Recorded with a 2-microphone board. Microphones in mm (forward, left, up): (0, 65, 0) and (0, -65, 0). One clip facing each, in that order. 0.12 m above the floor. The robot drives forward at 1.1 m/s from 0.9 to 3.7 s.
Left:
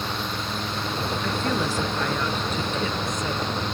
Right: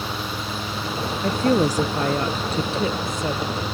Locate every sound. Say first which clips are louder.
1.2 s a woman speaking: right 9 dB; 40° right (ahead or behind); by 3.6 s 25° right (ahead or behind)